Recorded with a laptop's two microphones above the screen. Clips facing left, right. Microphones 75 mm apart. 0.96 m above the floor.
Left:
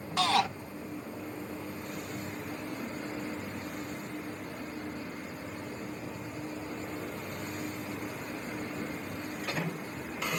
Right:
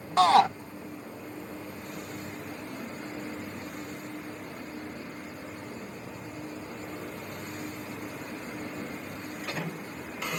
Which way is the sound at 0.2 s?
40° right (ahead or behind).